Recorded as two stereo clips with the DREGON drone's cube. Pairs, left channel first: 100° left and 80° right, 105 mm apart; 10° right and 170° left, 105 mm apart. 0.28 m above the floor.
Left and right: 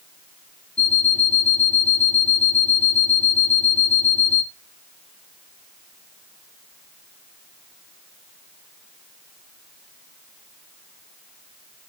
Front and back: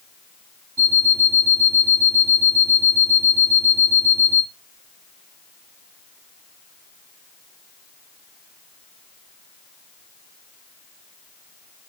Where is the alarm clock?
110° left, 1.1 m.